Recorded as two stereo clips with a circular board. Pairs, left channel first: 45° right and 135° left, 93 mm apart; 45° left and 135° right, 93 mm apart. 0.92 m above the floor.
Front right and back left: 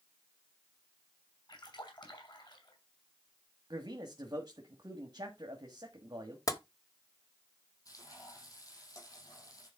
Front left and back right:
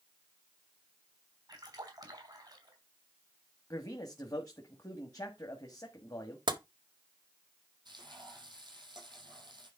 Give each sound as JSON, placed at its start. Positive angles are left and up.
{"t": 1.5, "sound": "a splash", "azimuth_deg": -85, "distance_m": 3.5}
{"t": 3.7, "sound": "a man speaking", "azimuth_deg": 95, "distance_m": 1.8}
{"t": 6.5, "sound": "tapping", "azimuth_deg": -95, "distance_m": 1.3}
{"t": 7.8, "sound": "frying", "azimuth_deg": -95, "distance_m": 5.5}